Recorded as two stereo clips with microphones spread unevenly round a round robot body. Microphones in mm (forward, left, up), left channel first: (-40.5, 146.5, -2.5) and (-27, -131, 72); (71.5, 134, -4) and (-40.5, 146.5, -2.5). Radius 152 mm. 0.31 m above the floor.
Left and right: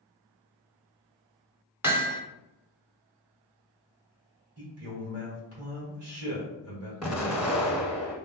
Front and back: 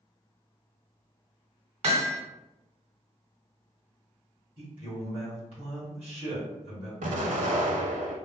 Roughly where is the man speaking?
Behind right.